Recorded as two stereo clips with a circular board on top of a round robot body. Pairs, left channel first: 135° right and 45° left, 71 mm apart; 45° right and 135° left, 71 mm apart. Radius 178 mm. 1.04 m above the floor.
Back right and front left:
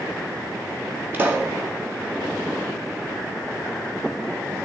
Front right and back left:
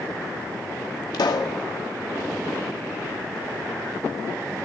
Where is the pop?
20° right, 0.6 m.